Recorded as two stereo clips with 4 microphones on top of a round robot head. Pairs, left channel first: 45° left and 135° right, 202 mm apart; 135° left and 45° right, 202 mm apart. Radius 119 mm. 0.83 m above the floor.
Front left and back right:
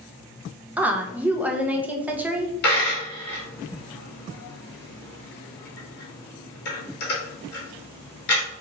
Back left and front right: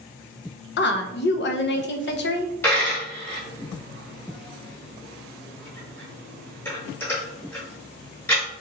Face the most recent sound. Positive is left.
turn(degrees=55)